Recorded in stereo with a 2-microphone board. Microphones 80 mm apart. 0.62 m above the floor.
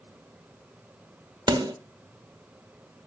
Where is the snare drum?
75° right (ahead or behind), 1.2 m.